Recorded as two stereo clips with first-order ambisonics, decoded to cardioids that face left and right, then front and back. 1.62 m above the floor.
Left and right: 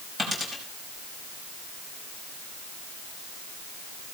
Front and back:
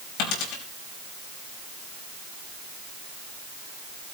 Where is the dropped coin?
10° right, 4.5 m.